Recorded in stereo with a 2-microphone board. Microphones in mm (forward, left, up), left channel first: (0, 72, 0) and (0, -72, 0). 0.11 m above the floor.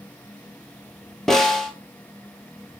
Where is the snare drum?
5° left (ahead or behind), 0.8 m.